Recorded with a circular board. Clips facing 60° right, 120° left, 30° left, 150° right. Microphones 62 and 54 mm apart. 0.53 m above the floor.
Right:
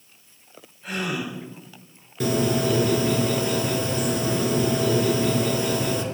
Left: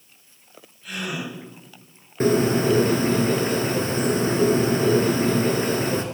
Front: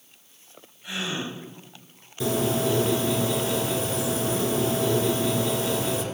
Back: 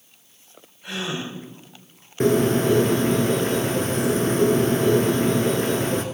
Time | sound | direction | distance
0.8 | a gasp | 115° right | 6 m
2.2 | a bird | 170° left | 1.3 m